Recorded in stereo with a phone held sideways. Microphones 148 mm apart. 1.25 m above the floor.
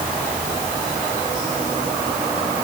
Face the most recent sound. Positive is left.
No sound to turn to.